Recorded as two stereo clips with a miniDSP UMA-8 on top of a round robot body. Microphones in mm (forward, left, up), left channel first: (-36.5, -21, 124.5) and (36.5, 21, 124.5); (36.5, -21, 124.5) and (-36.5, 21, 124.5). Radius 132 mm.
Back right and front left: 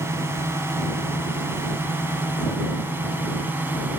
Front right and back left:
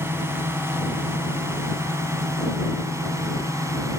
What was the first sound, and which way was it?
A drone, 90° left.